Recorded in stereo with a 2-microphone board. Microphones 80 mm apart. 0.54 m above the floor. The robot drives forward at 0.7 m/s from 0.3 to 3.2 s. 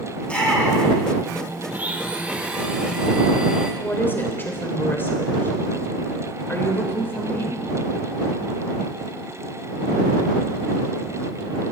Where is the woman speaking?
25° left (ahead or behind), 2.5 m.